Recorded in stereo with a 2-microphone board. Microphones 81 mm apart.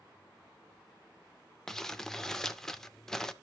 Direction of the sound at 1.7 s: 5° left (ahead or behind).